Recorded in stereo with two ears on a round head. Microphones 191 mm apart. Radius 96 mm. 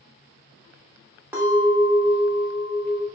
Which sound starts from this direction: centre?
A clink, at 1.3 s.